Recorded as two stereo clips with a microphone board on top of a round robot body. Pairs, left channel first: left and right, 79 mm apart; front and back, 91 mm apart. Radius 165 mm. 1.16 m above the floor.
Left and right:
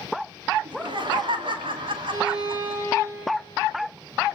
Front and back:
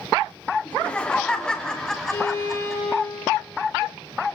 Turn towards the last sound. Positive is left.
turn(degrees=-60)